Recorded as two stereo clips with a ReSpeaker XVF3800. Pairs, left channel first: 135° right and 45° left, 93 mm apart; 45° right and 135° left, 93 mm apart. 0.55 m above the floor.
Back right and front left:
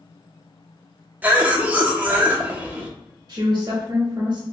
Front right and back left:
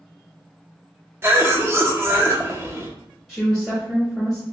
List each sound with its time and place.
1.2 s a cough: 100° left, 0.7 m
3.3 s a woman speaking: 45° left, 0.8 m